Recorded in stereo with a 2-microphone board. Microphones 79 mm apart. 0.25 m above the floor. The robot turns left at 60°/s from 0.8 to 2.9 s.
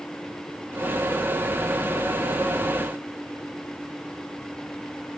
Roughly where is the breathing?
I don't hear breathing.